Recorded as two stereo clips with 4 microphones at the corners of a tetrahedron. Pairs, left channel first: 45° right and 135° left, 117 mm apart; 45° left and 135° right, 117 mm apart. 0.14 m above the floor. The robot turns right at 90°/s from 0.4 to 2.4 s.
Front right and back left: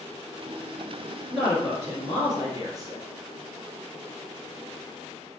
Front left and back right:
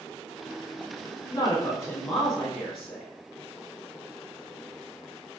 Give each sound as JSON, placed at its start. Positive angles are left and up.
{"t": 1.3, "sound": "a woman speaking", "azimuth_deg": 40, "distance_m": 1.4}